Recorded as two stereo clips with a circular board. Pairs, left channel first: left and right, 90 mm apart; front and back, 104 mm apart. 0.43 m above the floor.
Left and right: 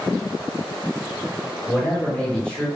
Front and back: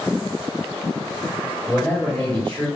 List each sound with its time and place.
1.7 s a man speaking: 35° left, 1.4 m